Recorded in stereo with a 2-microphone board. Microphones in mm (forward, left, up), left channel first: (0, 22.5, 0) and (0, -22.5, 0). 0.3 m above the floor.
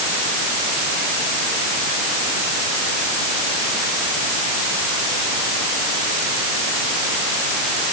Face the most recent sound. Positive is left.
No sound to turn to.